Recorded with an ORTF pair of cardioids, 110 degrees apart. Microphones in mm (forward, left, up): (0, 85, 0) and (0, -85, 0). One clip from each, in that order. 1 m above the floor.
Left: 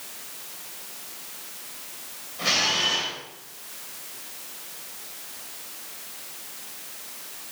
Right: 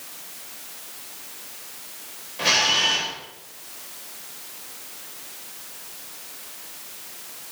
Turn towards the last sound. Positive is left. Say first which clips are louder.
# right 3 dB
turn(degrees=-30)